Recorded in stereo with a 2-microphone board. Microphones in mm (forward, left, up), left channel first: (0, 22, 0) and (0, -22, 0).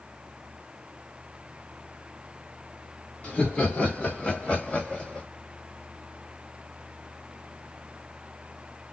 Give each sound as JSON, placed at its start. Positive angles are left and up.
{"t": 3.2, "sound": "laughter", "side_deg": 30, "distance_m": 1.7}